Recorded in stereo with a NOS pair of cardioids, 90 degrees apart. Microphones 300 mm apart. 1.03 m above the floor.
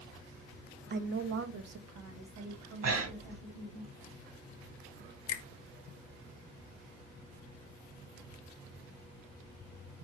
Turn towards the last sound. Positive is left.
turn(degrees=60)